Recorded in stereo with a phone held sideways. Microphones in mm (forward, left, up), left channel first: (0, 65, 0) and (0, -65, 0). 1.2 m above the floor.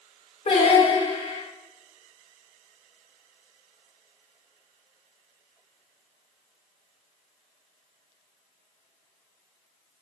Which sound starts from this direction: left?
Singing, at 0.5 s.